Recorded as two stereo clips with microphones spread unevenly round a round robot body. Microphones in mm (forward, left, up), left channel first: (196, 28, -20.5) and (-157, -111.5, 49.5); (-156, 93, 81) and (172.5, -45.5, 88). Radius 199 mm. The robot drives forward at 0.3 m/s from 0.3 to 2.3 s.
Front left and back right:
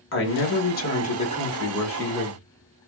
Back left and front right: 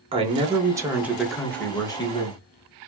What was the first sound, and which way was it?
A man speaking, 50° left.